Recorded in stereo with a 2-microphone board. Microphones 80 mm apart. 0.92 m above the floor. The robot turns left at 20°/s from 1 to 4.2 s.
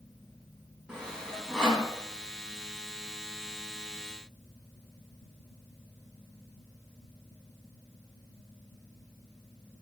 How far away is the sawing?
About 3.5 m.